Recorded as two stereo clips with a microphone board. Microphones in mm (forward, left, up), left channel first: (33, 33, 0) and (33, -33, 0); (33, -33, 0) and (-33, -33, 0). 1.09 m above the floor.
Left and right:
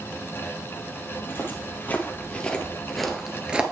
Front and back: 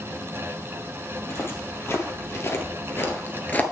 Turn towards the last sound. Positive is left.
turn(degrees=-35)